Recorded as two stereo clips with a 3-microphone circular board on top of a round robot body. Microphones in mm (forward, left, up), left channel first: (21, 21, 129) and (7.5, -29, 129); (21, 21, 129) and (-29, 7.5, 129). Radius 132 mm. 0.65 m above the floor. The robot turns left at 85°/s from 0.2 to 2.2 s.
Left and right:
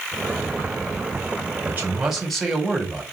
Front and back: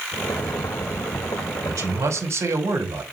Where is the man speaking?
150° right, 4 m; by 3.0 s 165° left, 4 m.